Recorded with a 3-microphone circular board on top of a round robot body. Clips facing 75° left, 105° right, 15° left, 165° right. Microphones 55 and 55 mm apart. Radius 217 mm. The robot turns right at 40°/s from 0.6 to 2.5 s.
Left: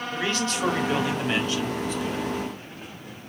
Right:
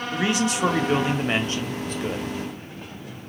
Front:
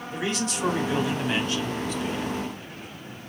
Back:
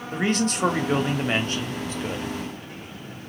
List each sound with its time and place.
0.1 s a man speaking: 175° right, 1.4 m; by 2.3 s 105° right, 1.4 m